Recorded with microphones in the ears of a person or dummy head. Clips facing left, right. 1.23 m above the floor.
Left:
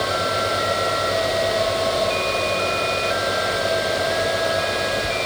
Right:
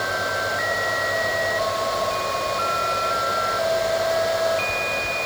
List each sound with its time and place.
Only background noise.